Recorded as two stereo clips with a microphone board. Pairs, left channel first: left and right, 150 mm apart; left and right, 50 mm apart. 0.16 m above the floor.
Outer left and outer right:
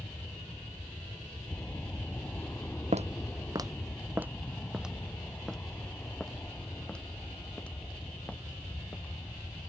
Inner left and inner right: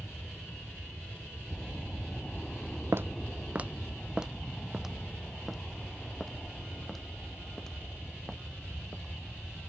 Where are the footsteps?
50° right (ahead or behind); by 9.1 s 10° left (ahead or behind).